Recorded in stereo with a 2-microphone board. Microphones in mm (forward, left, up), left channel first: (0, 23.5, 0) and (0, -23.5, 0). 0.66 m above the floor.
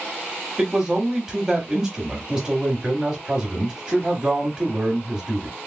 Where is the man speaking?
15° right (ahead or behind), 1.5 m.